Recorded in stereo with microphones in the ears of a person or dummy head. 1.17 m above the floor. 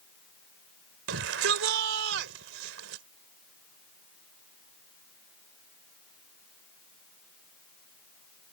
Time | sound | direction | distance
1.1 | a shout | 85° right | ?